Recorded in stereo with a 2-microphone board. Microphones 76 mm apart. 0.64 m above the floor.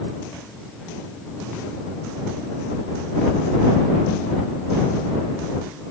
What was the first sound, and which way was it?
Only background noise.